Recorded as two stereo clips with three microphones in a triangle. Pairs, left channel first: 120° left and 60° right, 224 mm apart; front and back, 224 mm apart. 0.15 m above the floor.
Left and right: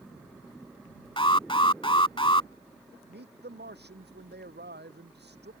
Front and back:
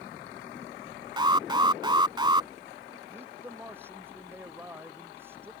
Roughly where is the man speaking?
Right.